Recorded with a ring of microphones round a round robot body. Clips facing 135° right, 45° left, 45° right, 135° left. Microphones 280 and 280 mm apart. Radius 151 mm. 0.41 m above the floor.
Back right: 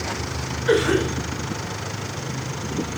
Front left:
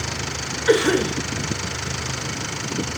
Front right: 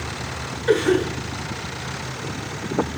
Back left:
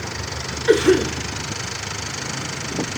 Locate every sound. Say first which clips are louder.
0.7 s a cough: front left 1 dB, back left 3 dB; 60° left, 4 m